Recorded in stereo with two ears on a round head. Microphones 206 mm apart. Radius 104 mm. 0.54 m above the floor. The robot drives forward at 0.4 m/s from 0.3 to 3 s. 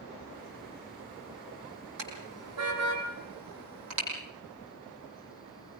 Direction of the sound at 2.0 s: 80° right.